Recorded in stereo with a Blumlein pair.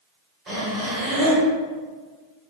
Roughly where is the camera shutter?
No camera shutter in this recording.